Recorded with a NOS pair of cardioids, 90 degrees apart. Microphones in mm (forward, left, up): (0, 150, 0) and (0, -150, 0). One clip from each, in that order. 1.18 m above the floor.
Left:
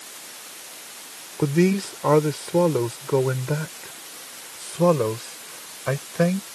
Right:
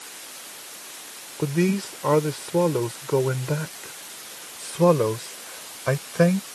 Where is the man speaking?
25° left; by 6.5 s 15° right.